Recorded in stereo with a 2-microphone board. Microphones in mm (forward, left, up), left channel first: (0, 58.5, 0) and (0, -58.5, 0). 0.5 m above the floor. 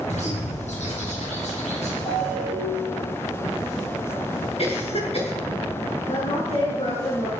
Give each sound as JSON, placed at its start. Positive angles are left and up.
{"t": 0.1, "sound": "a bird", "side_deg": 75, "distance_m": 7.5}
{"t": 2.0, "sound": "a ringtone", "side_deg": 85, "distance_m": 10.0}
{"t": 4.6, "sound": "a cough", "side_deg": 60, "distance_m": 9.0}
{"t": 6.1, "sound": "a woman speaking", "side_deg": 70, "distance_m": 7.5}